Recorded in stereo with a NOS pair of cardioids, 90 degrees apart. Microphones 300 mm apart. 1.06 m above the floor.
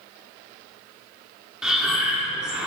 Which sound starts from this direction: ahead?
Breathing, at 1.6 s.